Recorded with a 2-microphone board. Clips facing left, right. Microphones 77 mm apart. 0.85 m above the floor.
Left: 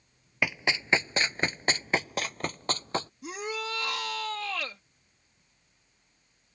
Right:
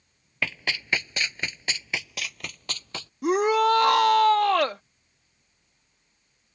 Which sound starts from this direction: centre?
Running footsteps, at 0.4 s.